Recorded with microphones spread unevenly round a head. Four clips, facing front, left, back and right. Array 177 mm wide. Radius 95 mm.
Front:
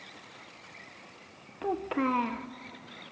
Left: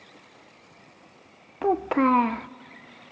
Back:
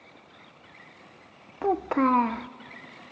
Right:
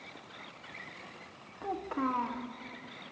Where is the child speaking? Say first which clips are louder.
Left 12 dB, back 6 dB; 110° left, 0.6 m.